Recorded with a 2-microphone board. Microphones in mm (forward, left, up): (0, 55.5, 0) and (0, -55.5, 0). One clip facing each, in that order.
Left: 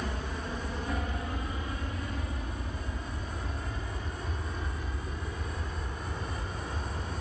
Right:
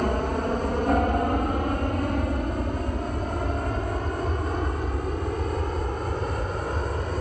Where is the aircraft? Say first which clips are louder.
Right 12 dB; 55° right (ahead or behind).